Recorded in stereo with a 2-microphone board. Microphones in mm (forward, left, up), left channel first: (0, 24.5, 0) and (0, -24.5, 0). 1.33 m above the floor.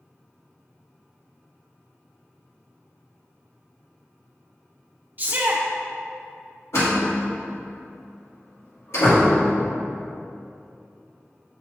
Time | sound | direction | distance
5.2 | a shout | 35° right (ahead or behind) | 1.2 m
6.7 | a door slam | 70° left (ahead or behind) | 1.8 m